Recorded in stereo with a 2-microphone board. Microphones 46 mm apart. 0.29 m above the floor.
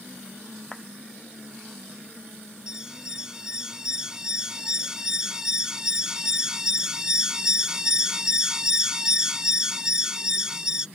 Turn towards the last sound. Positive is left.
turn(degrees=-15)  # may be behind; listen again after turning